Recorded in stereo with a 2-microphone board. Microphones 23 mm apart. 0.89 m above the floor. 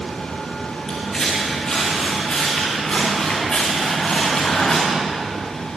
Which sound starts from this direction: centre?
Footsteps, at 0.9 s.